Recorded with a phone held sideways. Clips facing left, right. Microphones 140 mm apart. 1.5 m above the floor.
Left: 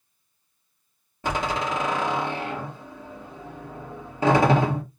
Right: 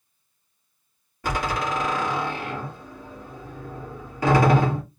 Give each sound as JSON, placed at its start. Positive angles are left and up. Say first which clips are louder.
{"t": 1.2, "sound": "a door slam", "louder": "even", "side_deg": 25, "distance_m": 2.0}